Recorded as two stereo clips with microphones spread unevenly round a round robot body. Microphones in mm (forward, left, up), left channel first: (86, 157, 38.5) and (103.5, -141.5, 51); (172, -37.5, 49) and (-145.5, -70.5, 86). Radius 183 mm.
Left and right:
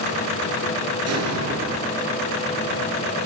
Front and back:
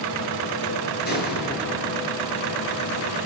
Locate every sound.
1.1 s an explosion: 55° right, 6 m